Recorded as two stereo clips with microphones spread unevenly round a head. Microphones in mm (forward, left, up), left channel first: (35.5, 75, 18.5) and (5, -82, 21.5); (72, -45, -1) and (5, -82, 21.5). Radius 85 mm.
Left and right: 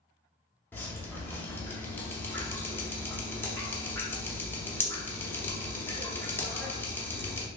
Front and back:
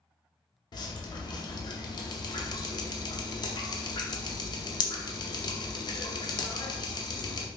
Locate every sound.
0.7 s dripping: straight ahead, 0.7 m